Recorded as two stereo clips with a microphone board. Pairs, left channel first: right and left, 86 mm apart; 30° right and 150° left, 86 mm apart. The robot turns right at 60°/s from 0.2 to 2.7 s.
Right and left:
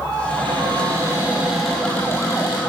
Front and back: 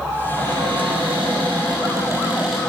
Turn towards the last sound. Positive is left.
turn(degrees=-115)